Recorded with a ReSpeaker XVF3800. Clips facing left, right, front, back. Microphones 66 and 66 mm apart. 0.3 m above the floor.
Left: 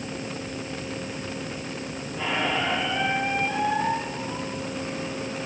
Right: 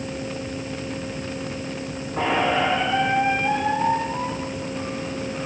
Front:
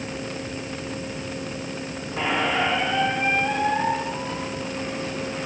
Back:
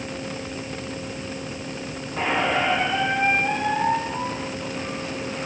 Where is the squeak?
90° right, 6 m.